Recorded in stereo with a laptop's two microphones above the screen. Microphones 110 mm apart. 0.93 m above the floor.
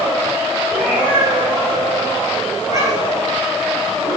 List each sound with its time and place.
0.7 s a cat meowing: 15° right (ahead or behind), 4 m; by 3.2 s 35° right (ahead or behind), 4 m